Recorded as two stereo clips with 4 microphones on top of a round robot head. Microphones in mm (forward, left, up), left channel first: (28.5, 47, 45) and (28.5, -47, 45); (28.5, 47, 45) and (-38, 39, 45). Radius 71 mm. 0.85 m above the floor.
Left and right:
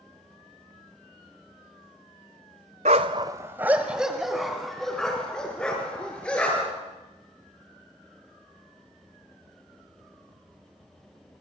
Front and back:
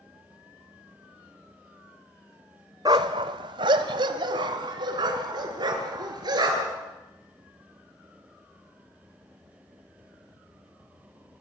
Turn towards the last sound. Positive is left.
turn(degrees=170)